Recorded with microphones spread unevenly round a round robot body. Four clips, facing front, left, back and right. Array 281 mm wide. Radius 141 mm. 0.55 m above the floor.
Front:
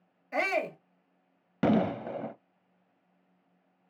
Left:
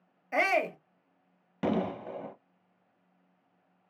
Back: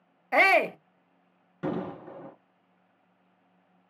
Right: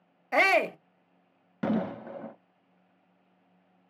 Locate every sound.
0.3 s a shout: 145° right, 0.7 m
1.6 s an explosion: 5° right, 0.7 m